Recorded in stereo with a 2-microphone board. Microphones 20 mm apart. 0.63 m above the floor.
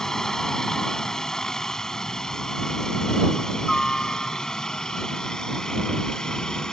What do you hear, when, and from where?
0.0 s a helicopter: 25° left (ahead or behind); by 6.7 s 35° left (ahead or behind)